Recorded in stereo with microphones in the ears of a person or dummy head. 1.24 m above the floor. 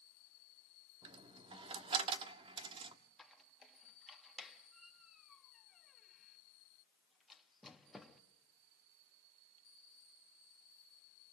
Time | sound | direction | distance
1.0 | a dropped coin | 30° right (ahead or behind) | 1.2 m
3.2 | a squeak | centre (ahead or behind) | 1.3 m